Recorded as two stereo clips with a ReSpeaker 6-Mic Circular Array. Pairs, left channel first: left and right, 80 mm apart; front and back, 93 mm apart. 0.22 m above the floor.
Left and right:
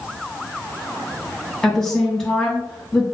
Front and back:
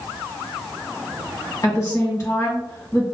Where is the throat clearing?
I don't hear throat clearing.